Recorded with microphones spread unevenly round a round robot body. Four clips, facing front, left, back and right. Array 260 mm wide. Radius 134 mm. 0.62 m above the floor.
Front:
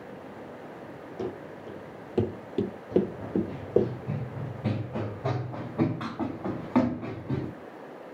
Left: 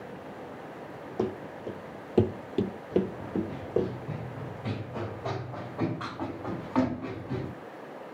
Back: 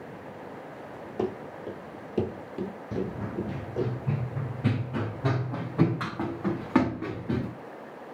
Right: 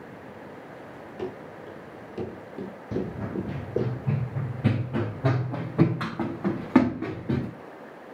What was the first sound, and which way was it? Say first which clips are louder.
Running footsteps: left 4 dB, back 4 dB; 130° left.